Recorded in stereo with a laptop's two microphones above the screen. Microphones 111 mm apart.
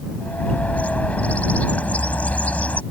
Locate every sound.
0.2 s a bird: 15° left (ahead or behind)